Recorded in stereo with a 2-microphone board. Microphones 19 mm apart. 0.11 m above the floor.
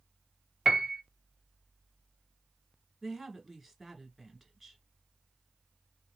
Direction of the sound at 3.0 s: Centre (ahead or behind).